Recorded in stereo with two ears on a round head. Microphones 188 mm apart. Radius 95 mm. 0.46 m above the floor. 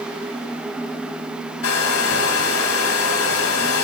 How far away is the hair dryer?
About 2.5 m.